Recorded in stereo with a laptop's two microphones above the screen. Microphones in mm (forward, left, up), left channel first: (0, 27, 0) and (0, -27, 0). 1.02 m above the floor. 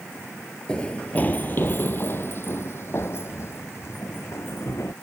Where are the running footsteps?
20° left (ahead or behind); by 4.9 s 55° left (ahead or behind).